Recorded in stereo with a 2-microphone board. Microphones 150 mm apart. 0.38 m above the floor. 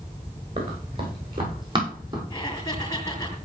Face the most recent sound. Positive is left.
turn(degrees=25)  # may be behind; listen again after turning